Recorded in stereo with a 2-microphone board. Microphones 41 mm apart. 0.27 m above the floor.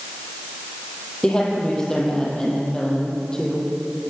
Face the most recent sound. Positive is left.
turn(degrees=15)  # may be behind; listen again after turning